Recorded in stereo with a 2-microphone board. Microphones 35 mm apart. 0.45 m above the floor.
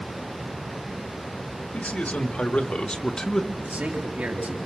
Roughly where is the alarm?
I don't hear an alarm.